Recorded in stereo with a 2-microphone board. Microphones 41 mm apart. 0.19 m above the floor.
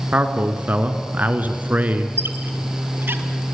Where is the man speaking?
40° right (ahead or behind), 2 m.